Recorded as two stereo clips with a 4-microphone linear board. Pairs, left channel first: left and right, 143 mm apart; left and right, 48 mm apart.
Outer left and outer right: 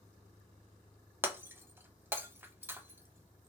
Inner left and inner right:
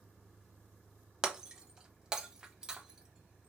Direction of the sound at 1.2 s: 15° right (ahead or behind).